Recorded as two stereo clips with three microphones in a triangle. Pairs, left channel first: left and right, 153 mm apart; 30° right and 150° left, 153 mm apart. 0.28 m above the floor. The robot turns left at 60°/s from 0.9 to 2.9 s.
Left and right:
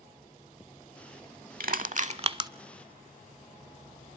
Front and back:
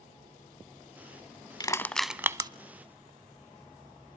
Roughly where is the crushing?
Right.